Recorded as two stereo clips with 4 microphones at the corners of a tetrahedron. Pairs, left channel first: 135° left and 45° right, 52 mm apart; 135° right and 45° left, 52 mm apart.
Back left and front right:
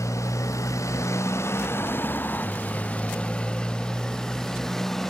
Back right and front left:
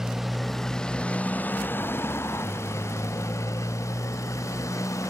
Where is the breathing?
I don't hear breathing.